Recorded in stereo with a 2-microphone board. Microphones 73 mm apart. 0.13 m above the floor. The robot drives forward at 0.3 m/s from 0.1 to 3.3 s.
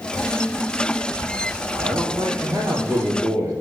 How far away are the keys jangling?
No keys jangling in this recording.